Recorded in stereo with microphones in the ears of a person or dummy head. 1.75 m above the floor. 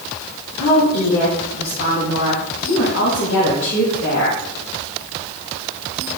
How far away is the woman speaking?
About 3.5 m.